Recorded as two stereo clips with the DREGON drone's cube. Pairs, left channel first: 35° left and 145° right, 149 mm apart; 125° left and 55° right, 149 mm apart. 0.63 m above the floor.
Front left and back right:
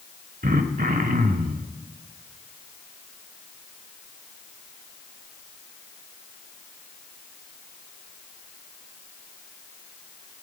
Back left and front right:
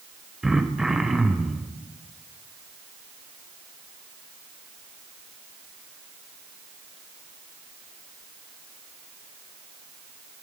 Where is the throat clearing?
140° right, 0.8 m.